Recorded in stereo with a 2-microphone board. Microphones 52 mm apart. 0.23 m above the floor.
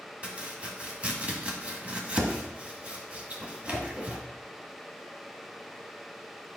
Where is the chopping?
25° right (ahead or behind), 1.6 m.